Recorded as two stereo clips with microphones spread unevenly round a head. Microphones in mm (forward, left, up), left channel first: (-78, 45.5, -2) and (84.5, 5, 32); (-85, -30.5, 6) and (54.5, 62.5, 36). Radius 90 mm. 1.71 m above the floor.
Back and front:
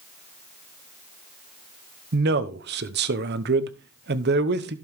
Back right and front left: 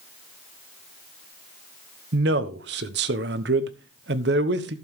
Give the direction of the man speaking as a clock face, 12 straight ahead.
12 o'clock.